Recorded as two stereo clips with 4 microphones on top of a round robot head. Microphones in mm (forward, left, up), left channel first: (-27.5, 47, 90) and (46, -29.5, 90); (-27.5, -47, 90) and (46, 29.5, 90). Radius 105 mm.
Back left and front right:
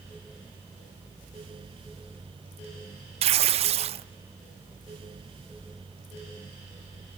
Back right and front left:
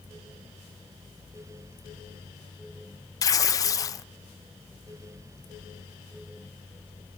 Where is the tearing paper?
75° right, 0.5 m.